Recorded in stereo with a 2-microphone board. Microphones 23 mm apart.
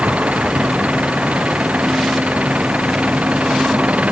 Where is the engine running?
70° right (ahead or behind).